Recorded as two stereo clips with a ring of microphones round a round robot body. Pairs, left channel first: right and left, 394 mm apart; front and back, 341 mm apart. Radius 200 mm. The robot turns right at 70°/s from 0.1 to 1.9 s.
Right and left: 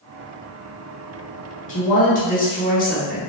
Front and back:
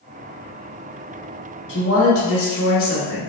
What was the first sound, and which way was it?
A woman speaking, 45° right.